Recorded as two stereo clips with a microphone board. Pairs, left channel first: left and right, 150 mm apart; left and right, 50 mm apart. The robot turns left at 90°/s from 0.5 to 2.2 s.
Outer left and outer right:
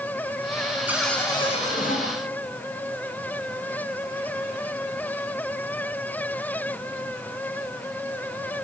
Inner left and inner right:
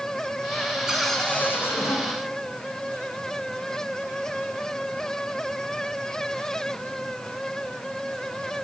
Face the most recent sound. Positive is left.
turn(degrees=75)